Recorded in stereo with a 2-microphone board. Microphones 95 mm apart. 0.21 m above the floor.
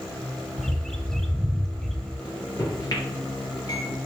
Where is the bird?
5° left (ahead or behind), 0.8 m.